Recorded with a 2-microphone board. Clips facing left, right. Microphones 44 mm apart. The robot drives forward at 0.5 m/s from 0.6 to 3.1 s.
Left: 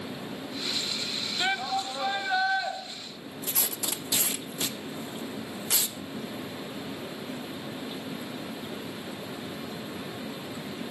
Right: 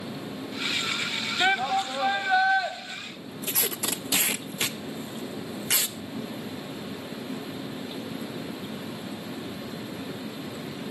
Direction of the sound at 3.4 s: 65° right (ahead or behind).